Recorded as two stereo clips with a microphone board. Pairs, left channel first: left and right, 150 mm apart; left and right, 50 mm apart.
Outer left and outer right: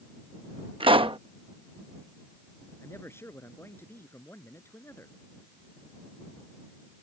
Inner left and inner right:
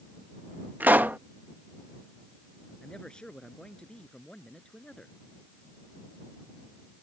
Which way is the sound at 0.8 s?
40° right (ahead or behind).